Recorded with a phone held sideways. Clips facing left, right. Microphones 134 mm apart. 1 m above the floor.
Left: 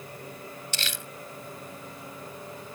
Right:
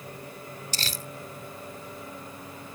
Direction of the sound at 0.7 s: 40° right (ahead or behind).